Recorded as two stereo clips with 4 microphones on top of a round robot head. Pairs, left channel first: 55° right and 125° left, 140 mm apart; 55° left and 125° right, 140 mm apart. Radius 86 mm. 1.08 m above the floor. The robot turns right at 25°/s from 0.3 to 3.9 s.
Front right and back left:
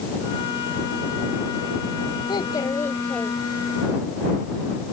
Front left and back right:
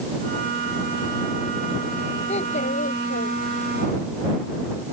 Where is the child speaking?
5° left; by 4.0 s 50° left.